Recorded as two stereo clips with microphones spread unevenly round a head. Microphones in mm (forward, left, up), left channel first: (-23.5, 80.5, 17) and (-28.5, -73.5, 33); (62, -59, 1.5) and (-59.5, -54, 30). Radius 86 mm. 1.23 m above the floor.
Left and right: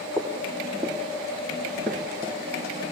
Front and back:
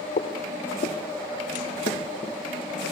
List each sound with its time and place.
0.2 s footsteps: 10° right, 2.5 m; by 2.4 s 25° left, 1.2 m